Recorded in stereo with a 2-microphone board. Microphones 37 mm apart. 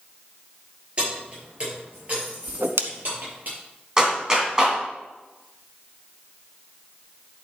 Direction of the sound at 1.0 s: 35° right (ahead or behind).